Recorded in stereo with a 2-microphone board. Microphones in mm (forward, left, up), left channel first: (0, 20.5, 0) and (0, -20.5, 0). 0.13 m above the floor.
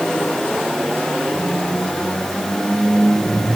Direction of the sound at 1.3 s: 10° left (ahead or behind).